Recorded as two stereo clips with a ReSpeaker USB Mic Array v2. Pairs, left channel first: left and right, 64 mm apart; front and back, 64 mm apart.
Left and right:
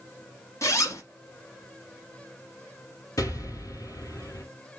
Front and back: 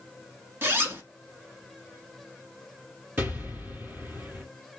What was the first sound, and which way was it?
A zipper, 125° left.